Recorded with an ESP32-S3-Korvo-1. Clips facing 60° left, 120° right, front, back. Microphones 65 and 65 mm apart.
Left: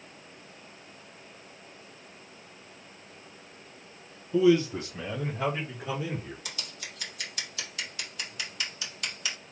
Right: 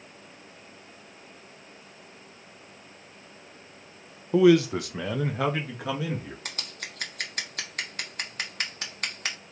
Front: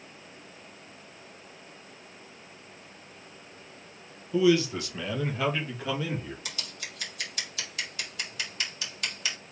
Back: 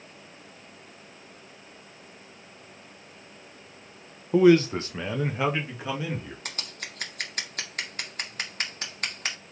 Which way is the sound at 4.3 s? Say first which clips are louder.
Right 4 dB, back 5 dB; 145° right.